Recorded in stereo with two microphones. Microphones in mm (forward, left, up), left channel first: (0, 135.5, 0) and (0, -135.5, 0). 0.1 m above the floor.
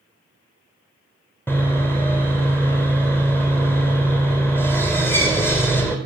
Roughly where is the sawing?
Centre.